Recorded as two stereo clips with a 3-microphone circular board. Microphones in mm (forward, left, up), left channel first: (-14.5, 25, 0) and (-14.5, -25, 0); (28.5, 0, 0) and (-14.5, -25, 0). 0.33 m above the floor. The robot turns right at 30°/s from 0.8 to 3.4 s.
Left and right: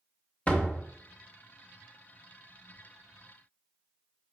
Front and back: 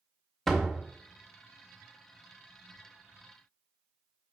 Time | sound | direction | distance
0.5 | a door slam | 110° left | 0.7 m